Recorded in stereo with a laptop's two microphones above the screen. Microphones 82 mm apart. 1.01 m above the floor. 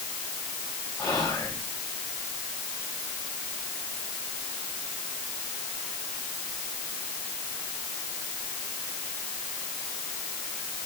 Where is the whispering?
50° left (ahead or behind), 3 m.